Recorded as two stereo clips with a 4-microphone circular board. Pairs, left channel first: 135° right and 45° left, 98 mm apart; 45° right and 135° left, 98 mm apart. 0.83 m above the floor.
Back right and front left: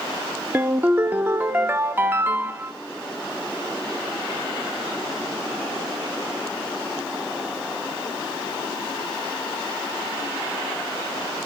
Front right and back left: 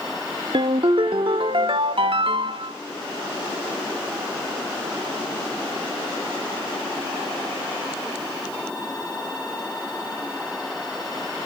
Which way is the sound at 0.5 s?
115° left.